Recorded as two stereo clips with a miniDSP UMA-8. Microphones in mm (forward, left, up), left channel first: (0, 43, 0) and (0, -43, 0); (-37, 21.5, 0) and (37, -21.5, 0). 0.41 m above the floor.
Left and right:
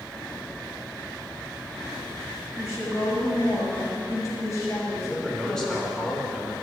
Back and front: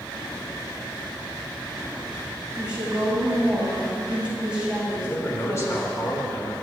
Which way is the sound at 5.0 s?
170° left.